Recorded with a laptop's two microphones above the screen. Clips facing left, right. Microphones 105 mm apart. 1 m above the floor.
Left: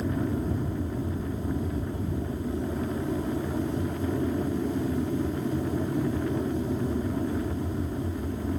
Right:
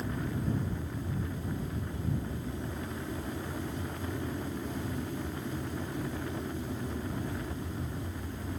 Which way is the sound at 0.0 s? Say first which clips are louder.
Left 7 dB; 40° left (ahead or behind).